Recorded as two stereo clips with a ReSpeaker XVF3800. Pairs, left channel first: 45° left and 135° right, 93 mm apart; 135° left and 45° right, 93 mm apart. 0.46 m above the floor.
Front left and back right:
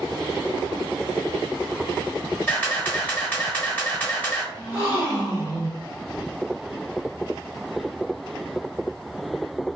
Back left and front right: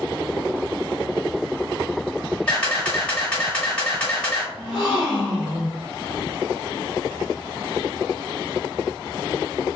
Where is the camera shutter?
80° left, 1.3 m.